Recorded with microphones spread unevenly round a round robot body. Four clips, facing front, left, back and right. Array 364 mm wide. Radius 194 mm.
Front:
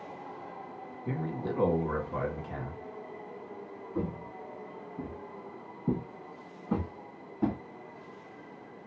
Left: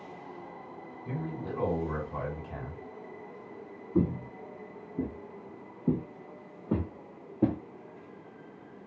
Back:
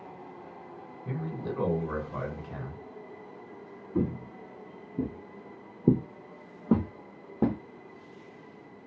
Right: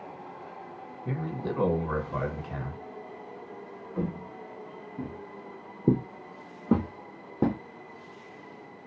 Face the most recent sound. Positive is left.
turn(degrees=-115)